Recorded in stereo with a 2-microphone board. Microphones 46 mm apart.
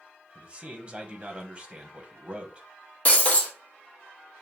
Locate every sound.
0.3 s a man speaking: 25° right (ahead or behind), 1.1 m
3.0 s breaking glass: 30° left (ahead or behind), 1.6 m